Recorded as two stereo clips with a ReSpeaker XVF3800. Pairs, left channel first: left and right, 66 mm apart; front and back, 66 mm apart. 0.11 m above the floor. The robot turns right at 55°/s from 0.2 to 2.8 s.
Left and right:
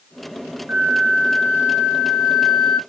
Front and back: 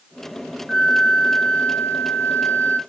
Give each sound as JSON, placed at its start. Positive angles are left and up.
{"t": 0.7, "sound": "a flute", "azimuth_deg": -105, "distance_m": 0.7}